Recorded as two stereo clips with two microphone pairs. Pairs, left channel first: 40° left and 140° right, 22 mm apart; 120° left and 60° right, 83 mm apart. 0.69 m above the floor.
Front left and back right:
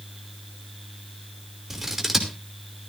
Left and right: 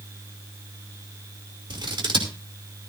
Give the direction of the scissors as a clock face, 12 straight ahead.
2 o'clock.